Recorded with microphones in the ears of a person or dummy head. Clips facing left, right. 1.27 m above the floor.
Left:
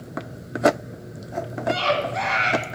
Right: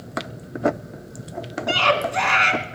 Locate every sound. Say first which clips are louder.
1.7 s a scream: right 1 dB; 65° right (ahead or behind), 2.5 m